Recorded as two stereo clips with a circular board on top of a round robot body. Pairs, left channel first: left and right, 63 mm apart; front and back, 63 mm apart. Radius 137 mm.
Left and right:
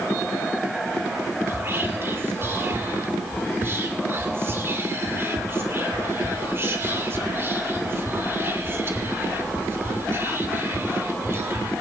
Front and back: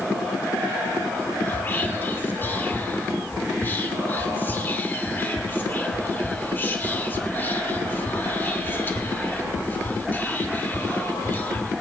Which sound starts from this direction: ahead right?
Whispering, at 1.5 s.